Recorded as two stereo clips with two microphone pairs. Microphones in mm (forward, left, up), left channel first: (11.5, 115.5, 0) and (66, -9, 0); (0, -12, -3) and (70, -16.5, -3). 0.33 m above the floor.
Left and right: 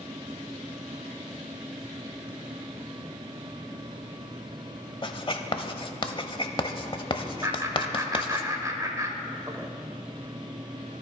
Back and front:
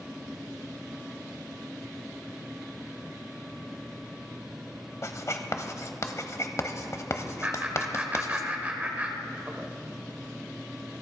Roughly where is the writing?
Behind left.